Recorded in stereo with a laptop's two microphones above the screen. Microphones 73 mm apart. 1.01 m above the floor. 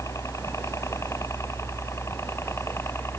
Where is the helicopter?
40° left (ahead or behind); by 3.2 s 35° left (ahead or behind).